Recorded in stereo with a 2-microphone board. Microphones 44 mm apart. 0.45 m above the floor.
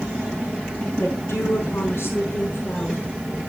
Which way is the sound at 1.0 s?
70° left (ahead or behind).